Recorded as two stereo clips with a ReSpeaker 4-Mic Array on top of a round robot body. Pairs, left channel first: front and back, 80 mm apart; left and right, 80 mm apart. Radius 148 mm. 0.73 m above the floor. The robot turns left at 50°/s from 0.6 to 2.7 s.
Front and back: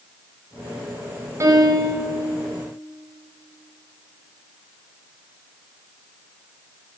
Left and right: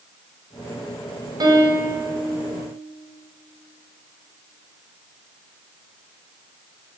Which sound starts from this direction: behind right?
A piano, at 1.4 s.